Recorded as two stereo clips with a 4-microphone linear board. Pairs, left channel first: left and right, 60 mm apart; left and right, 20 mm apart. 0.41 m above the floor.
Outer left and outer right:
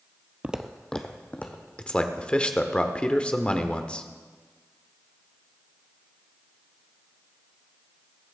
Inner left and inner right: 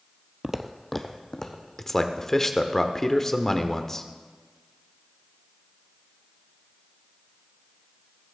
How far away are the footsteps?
About 0.6 m.